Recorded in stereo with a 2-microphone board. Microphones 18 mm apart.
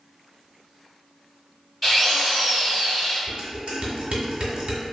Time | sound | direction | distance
1.8 | a drill | 10° left (ahead or behind) | 1.9 m
3.3 | dishes clattering | 65° right (ahead or behind) | 1.2 m